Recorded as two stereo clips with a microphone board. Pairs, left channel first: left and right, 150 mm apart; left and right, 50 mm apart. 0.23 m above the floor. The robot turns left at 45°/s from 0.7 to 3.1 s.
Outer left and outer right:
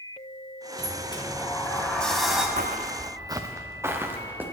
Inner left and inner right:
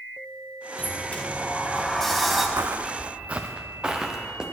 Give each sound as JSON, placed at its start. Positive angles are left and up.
{"t": 0.8, "sound": "a sliding door", "azimuth_deg": 65, "distance_m": 1.7}
{"t": 2.6, "sound": "footsteps", "side_deg": -70, "distance_m": 0.6}